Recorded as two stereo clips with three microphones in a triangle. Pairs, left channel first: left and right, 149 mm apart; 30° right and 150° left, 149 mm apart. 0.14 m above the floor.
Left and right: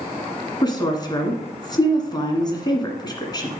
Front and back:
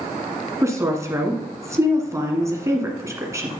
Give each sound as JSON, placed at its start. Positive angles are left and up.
{"t": 0.6, "sound": "a woman speaking", "azimuth_deg": 105, "distance_m": 1.7}